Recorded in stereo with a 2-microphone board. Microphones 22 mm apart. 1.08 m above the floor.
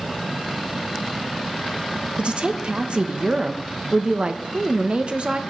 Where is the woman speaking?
55° right (ahead or behind), 0.9 m.